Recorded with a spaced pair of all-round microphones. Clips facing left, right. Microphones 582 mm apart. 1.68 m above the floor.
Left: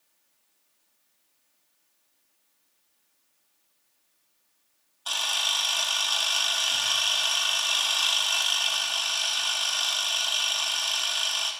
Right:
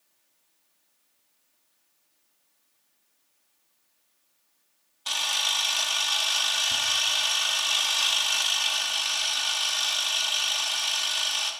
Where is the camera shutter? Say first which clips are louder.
Even; 45° right (ahead or behind), 1.5 m.